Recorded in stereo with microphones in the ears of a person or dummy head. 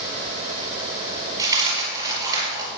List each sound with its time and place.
1.4 s a dropped coin: 25° right (ahead or behind), 5 m